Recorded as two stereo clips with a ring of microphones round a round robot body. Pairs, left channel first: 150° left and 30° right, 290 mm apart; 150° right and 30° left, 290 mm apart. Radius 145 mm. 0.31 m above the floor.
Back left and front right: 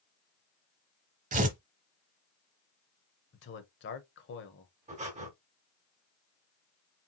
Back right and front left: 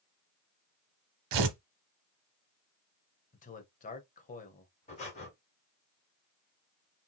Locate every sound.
1.3 s tearing paper: 35° left, 0.9 m
3.3 s a man speaking: 165° left, 1.0 m
4.9 s breathing: 90° right, 1.9 m